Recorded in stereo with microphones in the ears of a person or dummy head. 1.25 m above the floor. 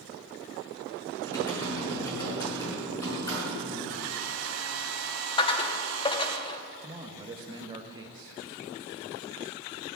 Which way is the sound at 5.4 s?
25° left (ahead or behind).